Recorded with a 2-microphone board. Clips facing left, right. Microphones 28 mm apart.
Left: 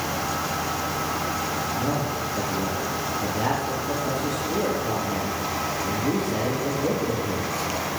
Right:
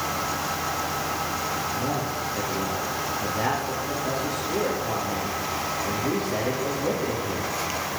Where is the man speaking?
35° right (ahead or behind), 4.5 m.